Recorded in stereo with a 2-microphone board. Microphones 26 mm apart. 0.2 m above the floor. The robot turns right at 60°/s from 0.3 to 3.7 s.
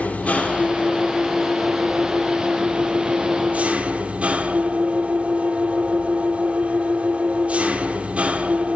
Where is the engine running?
90° left, 4 m; by 8.8 s 65° right, 4 m.